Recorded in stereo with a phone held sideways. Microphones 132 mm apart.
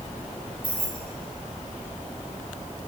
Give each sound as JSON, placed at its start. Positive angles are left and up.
{"t": 0.6, "sound": "keys jangling", "side_deg": 40, "distance_m": 5.5}